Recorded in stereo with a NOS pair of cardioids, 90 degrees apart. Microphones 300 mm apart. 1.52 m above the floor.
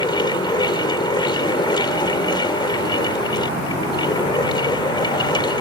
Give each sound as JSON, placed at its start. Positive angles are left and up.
{"t": 0.0, "sound": "a fan", "azimuth_deg": 15}